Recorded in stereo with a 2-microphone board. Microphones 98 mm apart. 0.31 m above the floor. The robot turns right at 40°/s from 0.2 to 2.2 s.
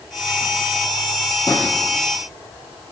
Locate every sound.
1.5 s a drawer: 40° left (ahead or behind), 7 m; by 1.7 s 50° left (ahead or behind), 7 m